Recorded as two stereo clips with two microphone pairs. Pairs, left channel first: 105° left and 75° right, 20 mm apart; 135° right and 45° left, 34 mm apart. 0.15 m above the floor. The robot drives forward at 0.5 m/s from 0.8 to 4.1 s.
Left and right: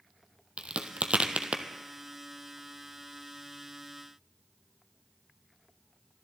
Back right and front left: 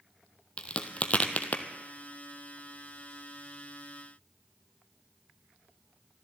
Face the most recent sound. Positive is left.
turn(degrees=-145)